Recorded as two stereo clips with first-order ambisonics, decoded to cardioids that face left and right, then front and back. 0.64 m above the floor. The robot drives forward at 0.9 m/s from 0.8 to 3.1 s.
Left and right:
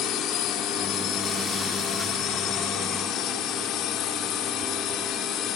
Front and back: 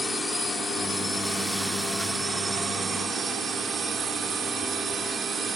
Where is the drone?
75° left; by 5.6 s 115° left.